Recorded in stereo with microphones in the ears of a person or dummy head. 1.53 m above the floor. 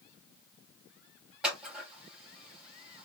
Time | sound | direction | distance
1.4 | scissors | 5° right (ahead or behind) | 2.5 m